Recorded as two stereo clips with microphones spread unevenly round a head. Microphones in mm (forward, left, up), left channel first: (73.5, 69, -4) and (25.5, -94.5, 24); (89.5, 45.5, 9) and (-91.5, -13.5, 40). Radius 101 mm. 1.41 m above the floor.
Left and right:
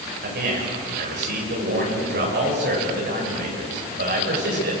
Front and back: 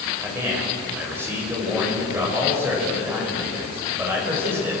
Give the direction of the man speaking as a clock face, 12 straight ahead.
3 o'clock.